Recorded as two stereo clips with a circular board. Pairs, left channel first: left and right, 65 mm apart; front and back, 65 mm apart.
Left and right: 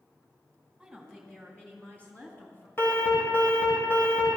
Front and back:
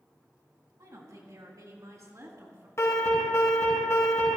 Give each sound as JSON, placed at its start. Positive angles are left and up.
{"t": 0.8, "sound": "a woman speaking", "azimuth_deg": -175, "distance_m": 3.0}
{"t": 2.8, "sound": "an alarm", "azimuth_deg": 40, "distance_m": 5.5}